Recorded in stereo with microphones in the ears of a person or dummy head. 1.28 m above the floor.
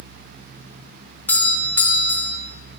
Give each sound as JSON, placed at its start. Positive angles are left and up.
{"t": 1.3, "sound": "a doorbell", "side_deg": 5, "distance_m": 0.7}